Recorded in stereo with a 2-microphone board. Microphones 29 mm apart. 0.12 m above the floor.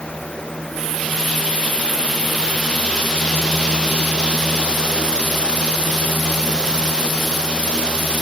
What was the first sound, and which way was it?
Only background noise.